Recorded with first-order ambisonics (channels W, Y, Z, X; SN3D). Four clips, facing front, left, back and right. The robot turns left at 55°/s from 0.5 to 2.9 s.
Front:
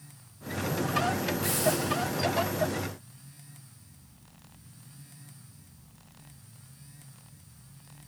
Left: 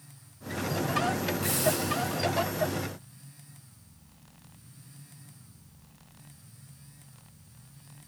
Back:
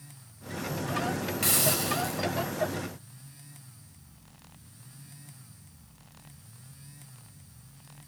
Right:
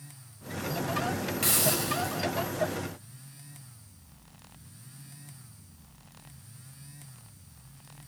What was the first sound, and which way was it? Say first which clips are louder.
A hiss: right 2 dB, back 2 dB; 135° right.